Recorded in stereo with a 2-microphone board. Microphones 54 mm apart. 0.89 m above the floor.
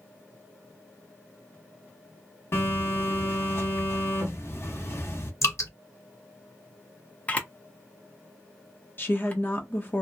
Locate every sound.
2.5 s a phone buzzing: 50° left (ahead or behind), 1.3 m
5.4 s dripping: 60° left (ahead or behind), 1.5 m
7.3 s a camera shutter: 25° left (ahead or behind), 0.8 m
9.0 s a woman speaking: 40° left (ahead or behind), 0.9 m